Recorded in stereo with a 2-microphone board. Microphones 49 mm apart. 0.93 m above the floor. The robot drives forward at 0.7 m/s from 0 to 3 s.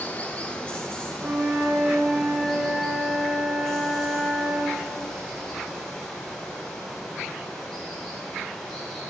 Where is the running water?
35° left (ahead or behind), 0.7 m; by 9.1 s 10° left (ahead or behind), 2.5 m.